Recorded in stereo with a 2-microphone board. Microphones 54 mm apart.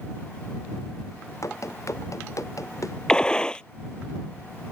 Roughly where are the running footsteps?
Left.